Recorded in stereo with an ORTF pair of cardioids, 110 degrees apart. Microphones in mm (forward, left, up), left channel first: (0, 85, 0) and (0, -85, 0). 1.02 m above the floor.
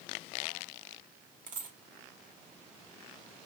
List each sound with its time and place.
1.5 s a dropped coin: 50° right, 1.2 m